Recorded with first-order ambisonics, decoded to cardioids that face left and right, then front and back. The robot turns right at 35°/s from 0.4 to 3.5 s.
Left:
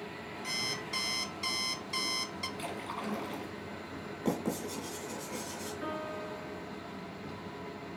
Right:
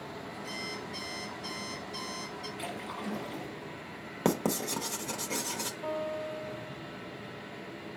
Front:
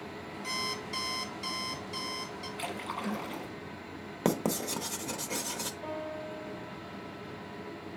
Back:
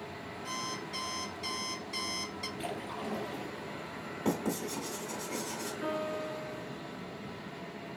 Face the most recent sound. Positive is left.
turn(degrees=125)